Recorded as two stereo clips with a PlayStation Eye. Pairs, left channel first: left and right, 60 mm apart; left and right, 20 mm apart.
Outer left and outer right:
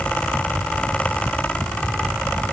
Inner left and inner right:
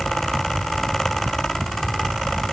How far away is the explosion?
I don't hear an explosion.